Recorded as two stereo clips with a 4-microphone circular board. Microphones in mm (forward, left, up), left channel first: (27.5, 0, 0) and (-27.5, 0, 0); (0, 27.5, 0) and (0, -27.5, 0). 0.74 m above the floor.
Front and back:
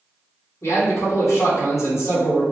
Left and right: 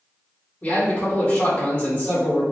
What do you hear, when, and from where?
0.6 s a man speaking: 25° left, 1.6 m